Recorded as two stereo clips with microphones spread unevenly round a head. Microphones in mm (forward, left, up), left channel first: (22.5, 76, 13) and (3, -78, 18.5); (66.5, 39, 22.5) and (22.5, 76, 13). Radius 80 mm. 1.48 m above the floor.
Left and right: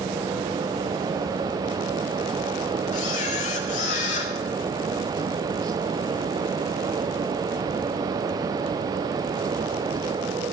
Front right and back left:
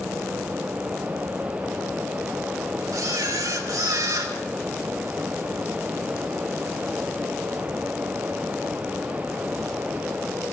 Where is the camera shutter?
130° left, 1.9 m.